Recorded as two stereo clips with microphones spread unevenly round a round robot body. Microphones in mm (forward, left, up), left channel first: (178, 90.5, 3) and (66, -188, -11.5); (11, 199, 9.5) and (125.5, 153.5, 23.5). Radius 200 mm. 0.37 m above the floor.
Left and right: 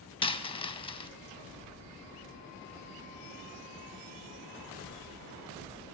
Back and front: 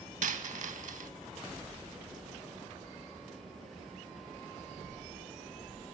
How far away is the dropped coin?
About 0.5 m.